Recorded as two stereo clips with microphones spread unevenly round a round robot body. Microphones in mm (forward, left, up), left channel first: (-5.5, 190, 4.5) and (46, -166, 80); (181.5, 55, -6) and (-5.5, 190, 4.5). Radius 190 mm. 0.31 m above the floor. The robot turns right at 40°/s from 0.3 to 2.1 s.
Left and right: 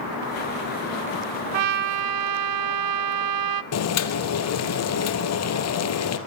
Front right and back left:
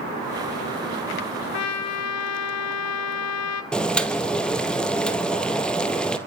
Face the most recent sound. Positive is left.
turn(degrees=50)